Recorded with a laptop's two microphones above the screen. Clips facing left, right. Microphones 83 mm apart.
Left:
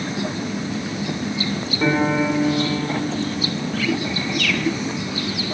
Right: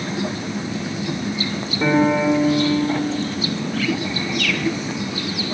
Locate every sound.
1.8 s a piano: centre (ahead or behind), 2.5 m